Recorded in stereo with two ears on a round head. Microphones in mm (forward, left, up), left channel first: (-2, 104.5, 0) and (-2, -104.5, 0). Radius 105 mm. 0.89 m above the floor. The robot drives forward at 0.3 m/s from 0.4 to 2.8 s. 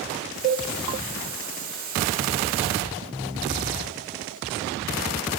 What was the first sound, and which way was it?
A cowbell, 35° right (ahead or behind).